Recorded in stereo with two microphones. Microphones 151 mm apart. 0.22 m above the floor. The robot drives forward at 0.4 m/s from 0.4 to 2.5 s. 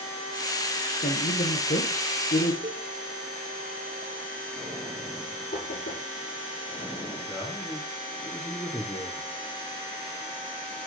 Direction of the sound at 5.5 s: 80° left.